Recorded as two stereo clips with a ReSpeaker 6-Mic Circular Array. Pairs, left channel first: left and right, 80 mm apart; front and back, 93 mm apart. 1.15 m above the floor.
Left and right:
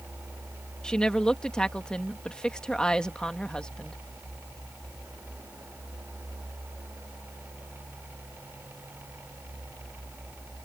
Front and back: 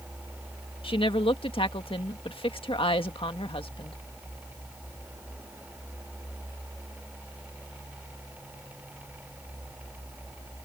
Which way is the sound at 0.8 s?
10° left.